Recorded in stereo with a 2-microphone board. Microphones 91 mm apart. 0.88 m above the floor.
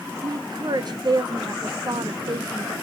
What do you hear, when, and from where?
0.2 s a woman speaking: 50° right (ahead or behind), 0.9 m